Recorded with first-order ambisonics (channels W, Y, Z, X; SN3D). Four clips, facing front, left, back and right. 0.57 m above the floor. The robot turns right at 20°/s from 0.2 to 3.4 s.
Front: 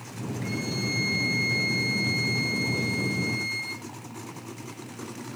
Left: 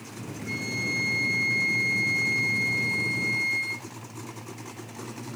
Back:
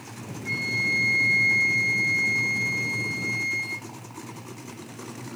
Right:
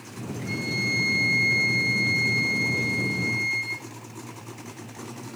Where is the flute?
20° right, 2.5 m; by 3.8 s 40° left, 2.5 m.